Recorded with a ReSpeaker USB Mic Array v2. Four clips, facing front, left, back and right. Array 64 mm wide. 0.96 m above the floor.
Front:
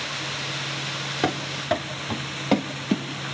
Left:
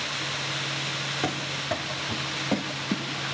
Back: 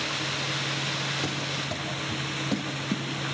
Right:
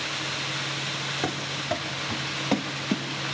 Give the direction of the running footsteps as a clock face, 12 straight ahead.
12 o'clock.